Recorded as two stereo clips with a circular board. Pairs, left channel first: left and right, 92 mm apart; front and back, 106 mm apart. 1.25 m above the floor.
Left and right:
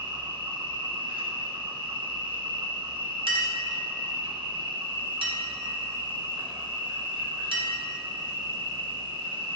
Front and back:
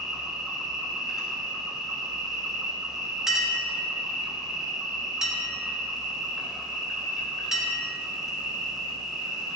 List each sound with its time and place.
0.0 s an insect: 95° right, 1.2 m
3.3 s a clink: 95° right, 1.1 m